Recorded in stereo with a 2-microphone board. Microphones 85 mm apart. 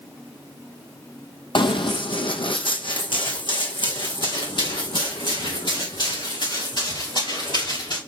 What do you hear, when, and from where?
1.6 s running footsteps: 70° left (ahead or behind), 0.9 m; by 8.0 s 60° left (ahead or behind), 4.5 m